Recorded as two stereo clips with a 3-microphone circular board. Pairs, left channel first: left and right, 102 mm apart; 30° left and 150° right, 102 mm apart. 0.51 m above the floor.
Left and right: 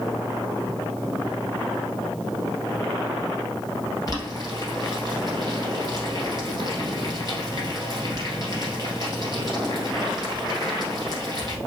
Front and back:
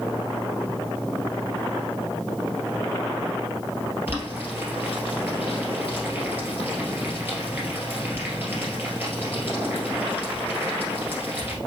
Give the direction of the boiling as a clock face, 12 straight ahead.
7 o'clock.